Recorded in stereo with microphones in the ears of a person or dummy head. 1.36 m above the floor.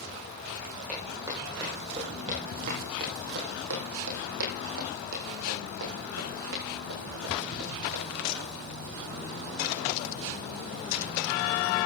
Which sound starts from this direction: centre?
Footsteps, at 0.9 s.